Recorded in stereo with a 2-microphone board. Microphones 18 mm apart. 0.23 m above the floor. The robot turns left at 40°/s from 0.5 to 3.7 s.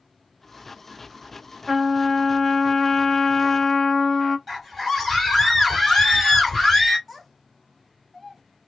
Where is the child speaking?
Centre (ahead or behind), 1.2 m.